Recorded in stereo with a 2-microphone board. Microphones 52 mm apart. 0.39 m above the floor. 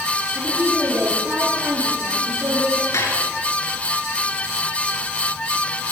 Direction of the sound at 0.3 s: 60° right (ahead or behind).